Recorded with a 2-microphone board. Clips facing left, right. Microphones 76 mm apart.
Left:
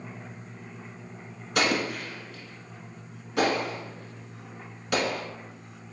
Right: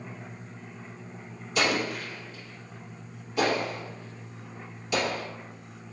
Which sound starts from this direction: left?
An explosion, at 1.6 s.